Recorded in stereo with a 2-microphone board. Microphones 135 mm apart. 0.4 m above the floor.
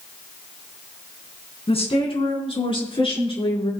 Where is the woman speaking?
45° left (ahead or behind), 4.5 m; by 3.7 s 40° left (ahead or behind), 7 m.